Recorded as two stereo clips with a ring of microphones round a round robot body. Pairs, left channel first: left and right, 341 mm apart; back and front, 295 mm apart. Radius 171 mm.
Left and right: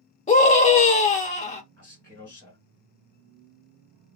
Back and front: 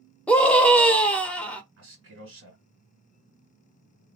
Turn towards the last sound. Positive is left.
turn(degrees=10)